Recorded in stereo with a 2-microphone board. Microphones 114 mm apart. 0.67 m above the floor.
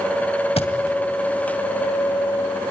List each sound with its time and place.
0.6 s a thud: 65° left (ahead or behind), 2 m